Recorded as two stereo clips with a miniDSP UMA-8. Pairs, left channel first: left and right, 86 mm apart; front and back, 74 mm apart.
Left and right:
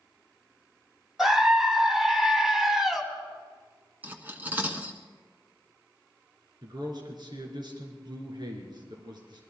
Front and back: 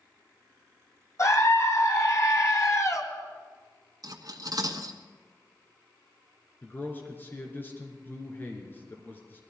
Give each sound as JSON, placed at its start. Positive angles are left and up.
{"t": 1.2, "sound": "a scream", "azimuth_deg": -5, "distance_m": 1.7}
{"t": 4.0, "sound": "cutlery clinking", "azimuth_deg": -160, "distance_m": 1.3}
{"t": 6.6, "sound": "a man speaking", "azimuth_deg": -60, "distance_m": 3.0}